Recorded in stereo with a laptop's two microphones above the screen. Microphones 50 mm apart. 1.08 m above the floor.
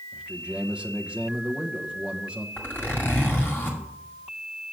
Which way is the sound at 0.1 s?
20° right (ahead or behind).